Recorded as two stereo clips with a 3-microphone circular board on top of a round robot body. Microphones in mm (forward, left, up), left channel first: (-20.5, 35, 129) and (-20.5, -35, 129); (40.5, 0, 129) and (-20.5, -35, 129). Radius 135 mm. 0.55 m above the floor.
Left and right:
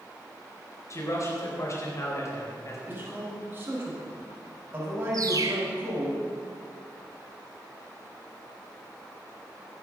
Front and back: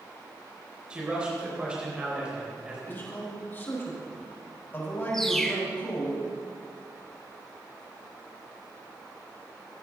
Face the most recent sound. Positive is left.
turn(degrees=-55)